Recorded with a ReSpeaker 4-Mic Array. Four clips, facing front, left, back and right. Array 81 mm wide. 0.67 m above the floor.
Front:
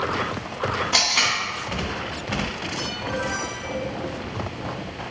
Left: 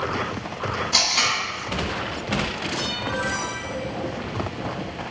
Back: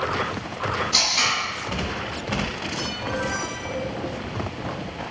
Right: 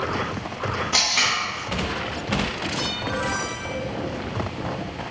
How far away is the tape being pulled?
About 1.4 m.